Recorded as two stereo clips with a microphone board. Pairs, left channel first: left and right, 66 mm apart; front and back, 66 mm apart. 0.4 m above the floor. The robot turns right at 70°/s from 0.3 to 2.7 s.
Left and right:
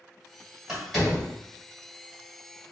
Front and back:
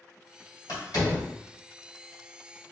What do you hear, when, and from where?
0.7 s a door slam: 15° right, 1.8 m; by 1.3 s 30° left, 1.8 m